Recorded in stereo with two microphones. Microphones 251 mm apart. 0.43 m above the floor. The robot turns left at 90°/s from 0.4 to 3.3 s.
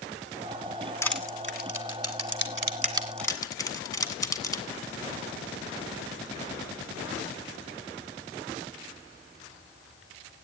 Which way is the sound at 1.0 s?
10° left (ahead or behind).